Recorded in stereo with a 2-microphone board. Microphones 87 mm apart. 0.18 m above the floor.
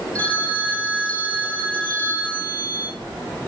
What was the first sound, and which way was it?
A phone ringing, 15° left (ahead or behind).